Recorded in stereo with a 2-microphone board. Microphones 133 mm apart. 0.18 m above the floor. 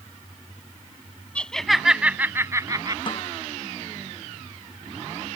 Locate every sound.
1.4 s laughter: 10° left (ahead or behind); by 3.0 s 30° right (ahead or behind)
3.1 s a snare drum: 40° left (ahead or behind)